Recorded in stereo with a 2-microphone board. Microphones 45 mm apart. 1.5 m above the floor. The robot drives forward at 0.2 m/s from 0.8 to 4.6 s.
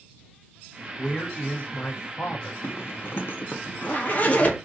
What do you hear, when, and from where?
1.0 s a man speaking: 35° left (ahead or behind), 1.0 m; by 2.5 s 45° left (ahead or behind), 0.8 m
2.6 s a zipper: 60° left (ahead or behind), 0.5 m; by 4.6 s 35° left (ahead or behind), 0.8 m